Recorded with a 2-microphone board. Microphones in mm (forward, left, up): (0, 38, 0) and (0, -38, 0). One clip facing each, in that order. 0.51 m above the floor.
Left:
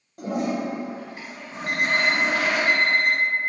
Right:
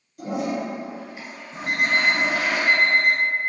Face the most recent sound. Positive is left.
turn(degrees=-15)  # may be behind; listen again after turning